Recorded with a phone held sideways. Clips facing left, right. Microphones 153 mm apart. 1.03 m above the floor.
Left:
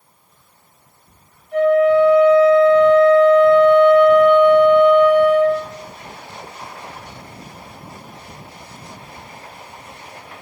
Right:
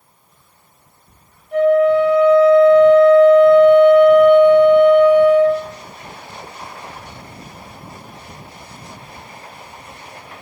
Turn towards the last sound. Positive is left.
turn(degrees=-60)  # may be behind; listen again after turning